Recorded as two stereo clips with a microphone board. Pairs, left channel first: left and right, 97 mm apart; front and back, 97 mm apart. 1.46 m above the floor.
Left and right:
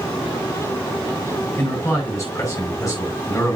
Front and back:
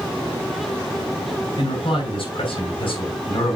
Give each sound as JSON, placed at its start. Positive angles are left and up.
{"t": 1.6, "sound": "a man speaking", "azimuth_deg": 30, "distance_m": 6.0}